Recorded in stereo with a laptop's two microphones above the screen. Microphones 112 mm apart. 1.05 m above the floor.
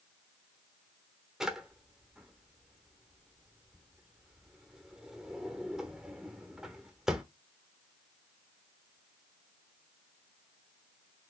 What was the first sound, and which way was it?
A drawer, 5° right (ahead or behind).